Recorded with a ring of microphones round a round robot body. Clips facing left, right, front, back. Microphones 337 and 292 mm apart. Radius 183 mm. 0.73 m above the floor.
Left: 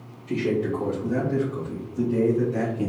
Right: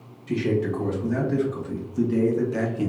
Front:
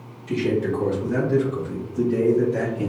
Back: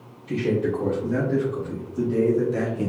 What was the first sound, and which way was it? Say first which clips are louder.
A man speaking: even, front 1 dB; 50° right.